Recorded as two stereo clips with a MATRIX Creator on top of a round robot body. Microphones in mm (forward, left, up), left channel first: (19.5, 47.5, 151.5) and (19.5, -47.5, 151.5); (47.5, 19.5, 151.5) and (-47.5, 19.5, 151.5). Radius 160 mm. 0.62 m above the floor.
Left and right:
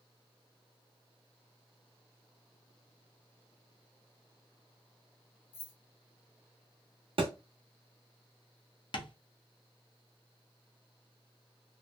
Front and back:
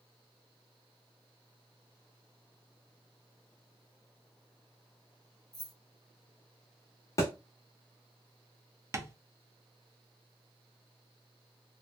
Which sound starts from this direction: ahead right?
A thud, at 7.2 s.